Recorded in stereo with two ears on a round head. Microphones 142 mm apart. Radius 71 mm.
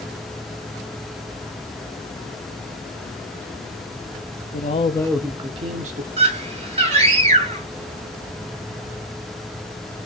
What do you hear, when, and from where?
4.5 s a man speaking: 50° left (ahead or behind), 1.0 m; by 6.1 s 55° right (ahead or behind), 1.5 m
6.2 s a scream: 40° right (ahead or behind), 5 m